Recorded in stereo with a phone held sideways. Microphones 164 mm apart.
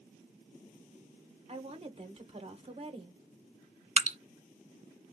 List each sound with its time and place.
1.5 s a woman speaking: 35° right (ahead or behind), 0.9 m
4.0 s dripping: 45° right (ahead or behind), 0.5 m